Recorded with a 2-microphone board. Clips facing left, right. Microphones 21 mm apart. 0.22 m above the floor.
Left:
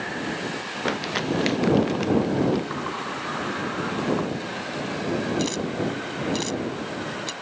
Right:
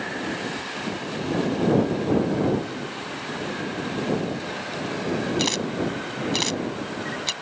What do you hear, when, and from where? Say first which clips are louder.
0.8 s crumpling: left 5 dB; 80° left
2.7 s a sliding door: left 3 dB; 65° left (ahead or behind)
5.4 s a camera shutter: right 1 dB; 35° right (ahead or behind)